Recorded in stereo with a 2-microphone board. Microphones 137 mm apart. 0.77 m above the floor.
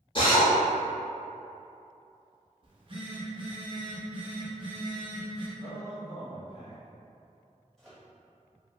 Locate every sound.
0.1 s a drill: 40° left (ahead or behind), 1.5 m
2.6 s a phone buzzing: 40° right (ahead or behind), 0.8 m
5.6 s a man speaking: 50° left (ahead or behind), 1.3 m
7.8 s a microwave: 5° left (ahead or behind), 1.1 m